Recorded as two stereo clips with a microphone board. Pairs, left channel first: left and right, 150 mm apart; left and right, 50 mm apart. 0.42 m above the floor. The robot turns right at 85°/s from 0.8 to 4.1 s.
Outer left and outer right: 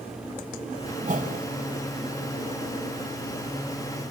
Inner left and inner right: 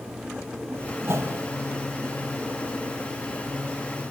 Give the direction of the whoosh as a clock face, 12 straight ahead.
4 o'clock.